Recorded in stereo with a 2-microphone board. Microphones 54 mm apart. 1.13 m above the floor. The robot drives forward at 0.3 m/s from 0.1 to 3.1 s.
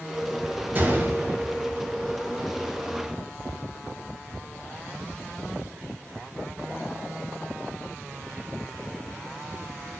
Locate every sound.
0.8 s a gunshot: 35° right (ahead or behind), 0.8 m; by 1.8 s 50° right (ahead or behind), 0.6 m